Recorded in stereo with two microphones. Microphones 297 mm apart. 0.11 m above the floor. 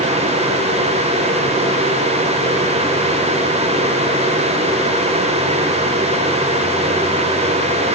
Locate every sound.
Only background noise.